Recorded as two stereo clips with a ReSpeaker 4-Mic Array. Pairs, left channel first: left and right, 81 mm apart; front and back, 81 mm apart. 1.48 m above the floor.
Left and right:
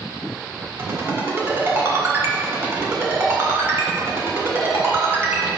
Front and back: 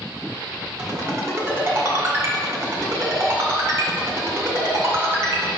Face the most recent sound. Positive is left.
turn(degrees=-145)